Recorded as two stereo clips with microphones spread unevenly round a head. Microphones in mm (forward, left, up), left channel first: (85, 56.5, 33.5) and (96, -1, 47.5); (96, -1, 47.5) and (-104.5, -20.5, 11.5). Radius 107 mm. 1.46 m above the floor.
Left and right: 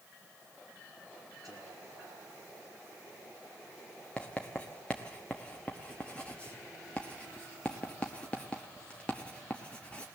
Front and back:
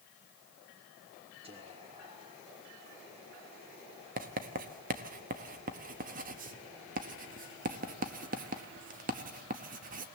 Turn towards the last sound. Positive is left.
turn(degrees=-170)